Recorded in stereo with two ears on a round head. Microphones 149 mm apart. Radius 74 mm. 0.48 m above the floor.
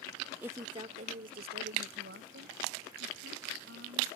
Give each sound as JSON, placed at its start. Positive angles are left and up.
{"t": 0.4, "sound": "a woman speaking", "side_deg": -10}